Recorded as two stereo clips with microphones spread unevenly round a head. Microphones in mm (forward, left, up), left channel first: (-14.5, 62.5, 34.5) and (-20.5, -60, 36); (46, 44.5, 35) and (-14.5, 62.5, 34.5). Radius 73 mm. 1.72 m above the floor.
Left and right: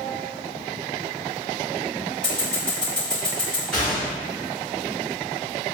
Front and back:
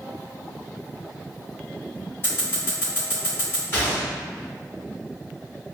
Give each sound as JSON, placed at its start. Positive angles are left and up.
{"t": 2.2, "sound": "scissors", "azimuth_deg": 5, "distance_m": 1.5}
{"t": 3.7, "sound": "a gunshot", "azimuth_deg": -10, "distance_m": 1.2}